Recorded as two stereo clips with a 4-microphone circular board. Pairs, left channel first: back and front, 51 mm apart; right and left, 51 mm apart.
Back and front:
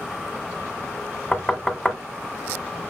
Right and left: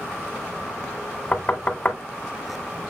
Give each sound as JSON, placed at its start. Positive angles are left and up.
{"t": 1.3, "sound": "knocking", "azimuth_deg": -110, "distance_m": 0.8}